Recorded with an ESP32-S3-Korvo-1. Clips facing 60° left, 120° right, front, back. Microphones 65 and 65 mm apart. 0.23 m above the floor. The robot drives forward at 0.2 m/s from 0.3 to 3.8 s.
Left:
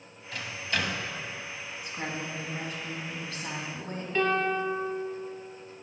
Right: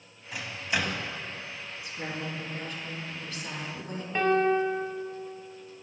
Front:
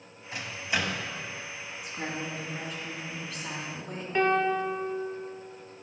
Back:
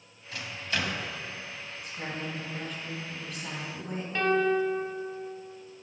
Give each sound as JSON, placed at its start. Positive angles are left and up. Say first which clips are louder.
{"t": 0.3, "sound": "a microwave", "louder": "right 1 dB, front 2 dB", "azimuth_deg": -50, "distance_m": 0.9}
{"t": 1.8, "sound": "a woman speaking", "louder": "even, front 1 dB", "azimuth_deg": 80, "distance_m": 2.0}
{"t": 4.2, "sound": "a piano", "louder": "right 3 dB, even", "azimuth_deg": -65, "distance_m": 0.8}